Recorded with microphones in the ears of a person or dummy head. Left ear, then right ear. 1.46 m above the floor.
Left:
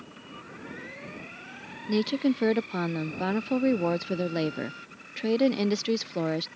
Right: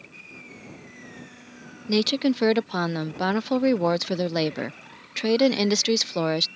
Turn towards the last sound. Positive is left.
turn(degrees=-30)  # may be behind; listen again after turning